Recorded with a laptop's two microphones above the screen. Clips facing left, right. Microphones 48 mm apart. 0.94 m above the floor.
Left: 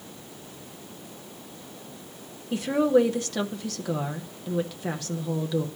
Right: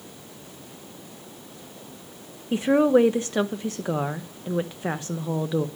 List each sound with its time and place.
2.5 s a woman speaking: 25° right (ahead or behind), 0.5 m